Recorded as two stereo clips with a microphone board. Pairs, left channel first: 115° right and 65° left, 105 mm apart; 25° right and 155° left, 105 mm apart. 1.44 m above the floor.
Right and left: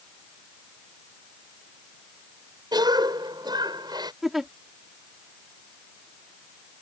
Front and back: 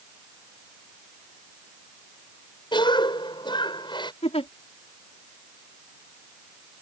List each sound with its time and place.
2.7 s a cough: 20° left
4.2 s a giggle: 20° right